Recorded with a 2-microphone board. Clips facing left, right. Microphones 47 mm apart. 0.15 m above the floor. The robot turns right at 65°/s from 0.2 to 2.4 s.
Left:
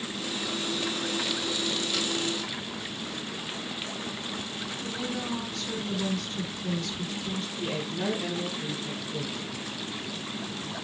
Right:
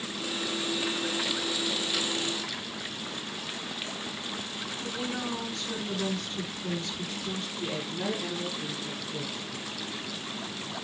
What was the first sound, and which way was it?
A woman speaking, 30° right (ahead or behind).